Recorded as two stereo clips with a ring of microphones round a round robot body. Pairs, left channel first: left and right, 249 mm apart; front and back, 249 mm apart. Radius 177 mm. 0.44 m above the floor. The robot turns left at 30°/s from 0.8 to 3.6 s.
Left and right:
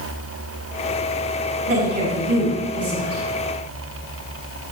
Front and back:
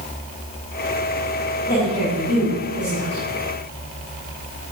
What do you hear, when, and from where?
1.7 s a woman speaking: 75° right, 4 m; by 3.2 s 120° right, 4 m